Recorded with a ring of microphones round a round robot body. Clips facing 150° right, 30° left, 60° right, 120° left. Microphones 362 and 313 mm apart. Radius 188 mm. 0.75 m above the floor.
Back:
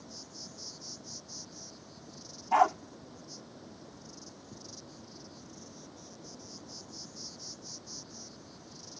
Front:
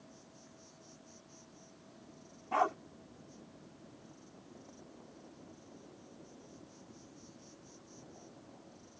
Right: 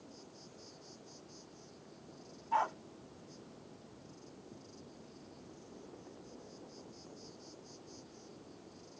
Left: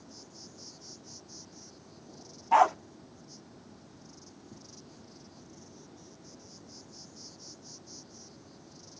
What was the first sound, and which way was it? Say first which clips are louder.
An insect: back 7 dB, left 3 dB; 175° right.